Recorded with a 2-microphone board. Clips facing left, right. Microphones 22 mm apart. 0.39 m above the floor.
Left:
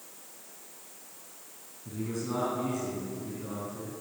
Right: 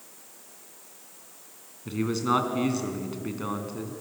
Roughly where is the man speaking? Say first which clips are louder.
Right 9 dB; right.